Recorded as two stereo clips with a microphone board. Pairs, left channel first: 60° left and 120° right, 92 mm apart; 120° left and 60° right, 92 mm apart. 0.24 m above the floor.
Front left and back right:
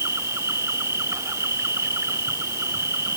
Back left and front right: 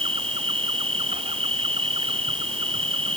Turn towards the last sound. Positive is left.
turn(degrees=-60)